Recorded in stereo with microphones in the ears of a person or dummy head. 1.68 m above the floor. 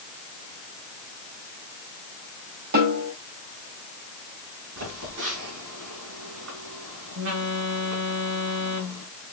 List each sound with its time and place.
2.7 s a snare drum: 55° right (ahead or behind), 1.7 m
4.8 s a phone buzzing: 65° right (ahead or behind), 2.5 m